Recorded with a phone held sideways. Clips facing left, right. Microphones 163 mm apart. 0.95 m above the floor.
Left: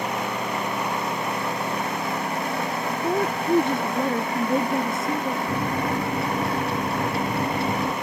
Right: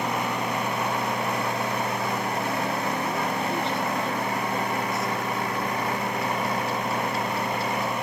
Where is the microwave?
70° left (ahead or behind).